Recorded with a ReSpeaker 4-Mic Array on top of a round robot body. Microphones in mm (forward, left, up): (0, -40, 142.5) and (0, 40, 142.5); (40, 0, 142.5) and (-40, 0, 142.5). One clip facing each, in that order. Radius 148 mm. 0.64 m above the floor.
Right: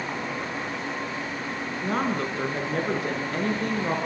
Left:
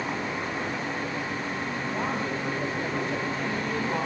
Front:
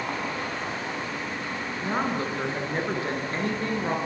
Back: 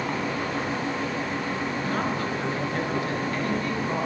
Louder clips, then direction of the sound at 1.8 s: Right 5 dB, front 3 dB; 70° right.